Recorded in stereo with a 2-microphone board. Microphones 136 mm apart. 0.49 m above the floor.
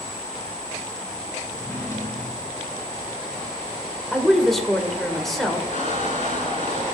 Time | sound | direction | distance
1.5 | a drawer | 20° left (ahead or behind) | 3.5 m
4.1 | a woman speaking | centre (ahead or behind) | 1.7 m
5.7 | a squeak | 60° left (ahead or behind) | 5 m